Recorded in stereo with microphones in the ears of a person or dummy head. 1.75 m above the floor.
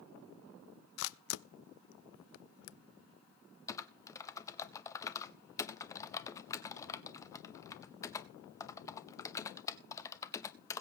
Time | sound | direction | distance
1.0 | a camera shutter | 75° left (ahead or behind) | 0.6 m
3.7 | typing on a keyboard | 15° left (ahead or behind) | 0.5 m